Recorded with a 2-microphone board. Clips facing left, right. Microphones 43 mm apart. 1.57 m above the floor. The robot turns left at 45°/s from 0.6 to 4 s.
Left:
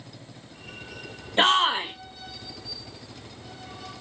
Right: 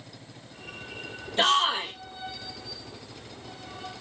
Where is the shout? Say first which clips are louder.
Left 3 dB; 35° left (ahead or behind), 0.5 m; by 1.9 s 15° left (ahead or behind), 0.5 m.